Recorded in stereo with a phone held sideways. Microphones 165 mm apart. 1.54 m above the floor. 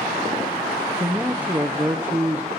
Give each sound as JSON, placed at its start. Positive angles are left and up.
{"t": 1.0, "sound": "a man speaking", "side_deg": -10, "distance_m": 0.6}